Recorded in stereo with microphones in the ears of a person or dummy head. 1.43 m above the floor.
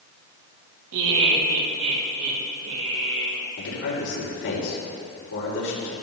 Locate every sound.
0.9 s laughter: 70° right (ahead or behind), 1.9 m; by 3.4 s 65° right (ahead or behind), 5 m
3.6 s a man speaking: 75° left (ahead or behind), 4 m